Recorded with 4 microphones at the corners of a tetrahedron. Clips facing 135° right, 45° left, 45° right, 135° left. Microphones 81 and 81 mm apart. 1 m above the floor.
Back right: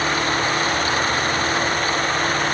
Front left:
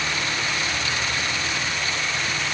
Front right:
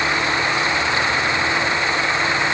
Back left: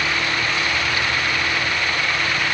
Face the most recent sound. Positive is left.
No sound to turn to.